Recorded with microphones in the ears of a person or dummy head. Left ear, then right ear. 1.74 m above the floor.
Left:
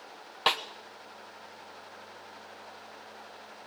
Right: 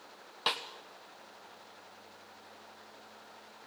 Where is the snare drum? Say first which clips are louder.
Left 6 dB; 20° left (ahead or behind), 1.1 m.